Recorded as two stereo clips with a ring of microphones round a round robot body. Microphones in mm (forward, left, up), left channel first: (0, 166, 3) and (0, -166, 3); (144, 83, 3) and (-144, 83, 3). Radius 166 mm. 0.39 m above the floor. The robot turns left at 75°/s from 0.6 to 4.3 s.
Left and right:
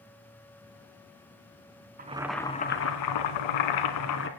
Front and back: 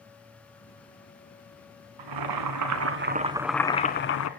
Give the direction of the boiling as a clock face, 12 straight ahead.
5 o'clock.